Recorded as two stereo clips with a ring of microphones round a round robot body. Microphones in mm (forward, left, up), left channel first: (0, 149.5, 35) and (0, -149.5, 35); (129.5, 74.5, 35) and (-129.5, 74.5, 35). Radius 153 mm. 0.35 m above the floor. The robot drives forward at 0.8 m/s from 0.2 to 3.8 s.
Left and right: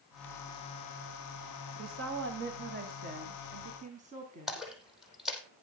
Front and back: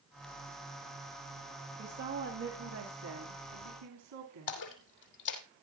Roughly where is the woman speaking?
Behind right.